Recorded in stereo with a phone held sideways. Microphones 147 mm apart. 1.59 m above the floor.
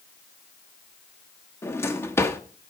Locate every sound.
1.6 s a drawer: 15° left (ahead or behind), 1.1 m